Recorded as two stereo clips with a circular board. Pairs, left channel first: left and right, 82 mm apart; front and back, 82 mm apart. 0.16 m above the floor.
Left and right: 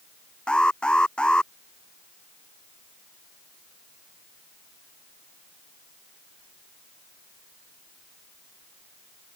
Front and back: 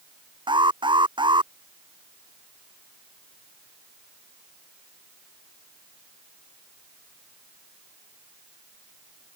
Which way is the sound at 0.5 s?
170° left.